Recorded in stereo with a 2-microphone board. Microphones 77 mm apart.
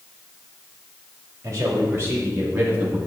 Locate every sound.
1.4 s a man speaking: 45° right (ahead or behind), 2.5 m; by 3.0 s 15° right (ahead or behind), 1.6 m